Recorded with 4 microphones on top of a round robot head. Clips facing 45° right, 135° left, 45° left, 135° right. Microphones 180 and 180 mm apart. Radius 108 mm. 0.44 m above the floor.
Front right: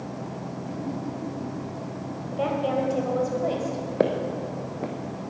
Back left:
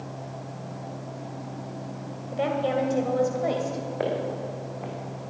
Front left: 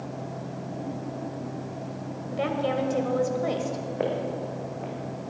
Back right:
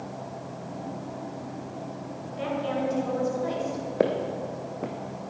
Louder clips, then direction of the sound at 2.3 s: Even, front left 3 dB; 60° left.